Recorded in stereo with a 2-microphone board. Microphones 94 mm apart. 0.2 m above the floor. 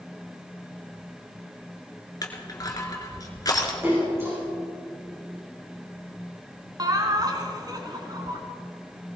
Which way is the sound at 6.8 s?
45° right (ahead or behind).